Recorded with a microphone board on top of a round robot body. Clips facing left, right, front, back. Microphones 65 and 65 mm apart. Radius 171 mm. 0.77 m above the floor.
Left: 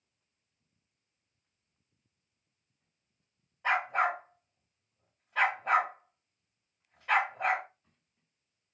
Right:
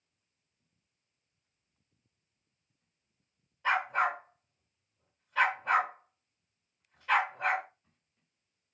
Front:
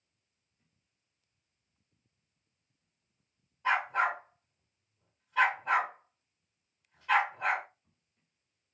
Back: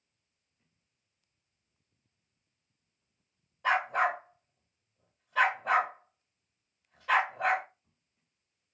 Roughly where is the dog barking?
Behind.